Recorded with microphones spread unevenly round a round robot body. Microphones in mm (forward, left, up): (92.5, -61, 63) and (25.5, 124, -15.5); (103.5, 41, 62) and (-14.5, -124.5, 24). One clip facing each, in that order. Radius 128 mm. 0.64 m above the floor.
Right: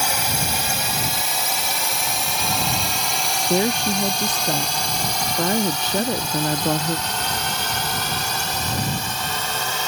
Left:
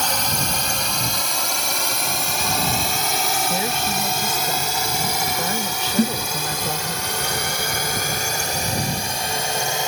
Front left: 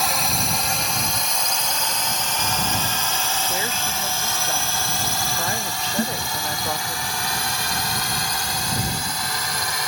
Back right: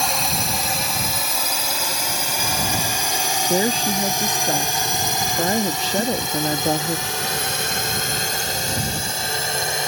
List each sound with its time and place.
0.0 s a drone: 170° left; by 9.9 s 175° left
3.5 s a woman speaking: 115° right
6.0 s a snare drum: 135° left